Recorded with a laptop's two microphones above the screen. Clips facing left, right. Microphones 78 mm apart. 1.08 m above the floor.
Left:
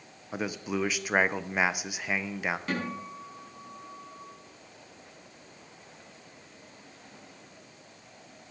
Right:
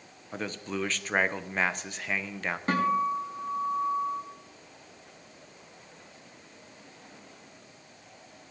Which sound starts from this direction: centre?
A man speaking, at 0.3 s.